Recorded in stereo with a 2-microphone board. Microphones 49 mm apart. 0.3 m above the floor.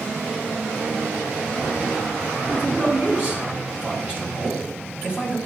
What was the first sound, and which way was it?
A man speaking, 35° right (ahead or behind).